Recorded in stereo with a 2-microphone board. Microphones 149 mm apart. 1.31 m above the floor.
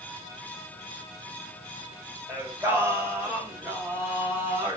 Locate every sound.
2.3 s singing: 15° right (ahead or behind), 1.3 m